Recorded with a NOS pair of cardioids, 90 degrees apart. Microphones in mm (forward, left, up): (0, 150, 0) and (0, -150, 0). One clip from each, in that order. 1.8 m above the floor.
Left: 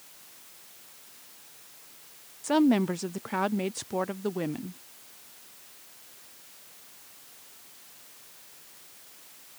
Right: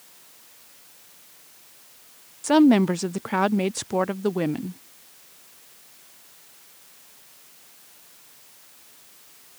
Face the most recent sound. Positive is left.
turn(degrees=-25)